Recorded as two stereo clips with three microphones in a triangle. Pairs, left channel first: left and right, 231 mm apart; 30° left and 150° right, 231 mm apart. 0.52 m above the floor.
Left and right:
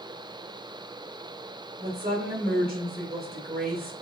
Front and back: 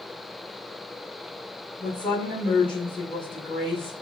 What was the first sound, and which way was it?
A woman speaking, 55° right.